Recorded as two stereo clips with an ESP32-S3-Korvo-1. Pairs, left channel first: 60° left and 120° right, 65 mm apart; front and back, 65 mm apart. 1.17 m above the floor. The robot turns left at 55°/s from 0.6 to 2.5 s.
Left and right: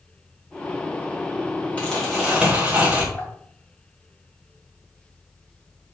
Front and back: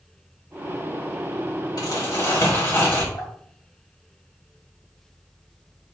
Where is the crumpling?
10° right, 2.5 m; by 3.0 s 50° right, 2.5 m.